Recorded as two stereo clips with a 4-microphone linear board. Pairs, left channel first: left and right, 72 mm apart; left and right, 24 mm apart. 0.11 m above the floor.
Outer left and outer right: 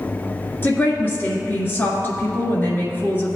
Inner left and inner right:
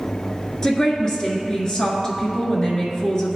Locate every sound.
0.6 s a woman speaking: 30° left (ahead or behind), 1.9 m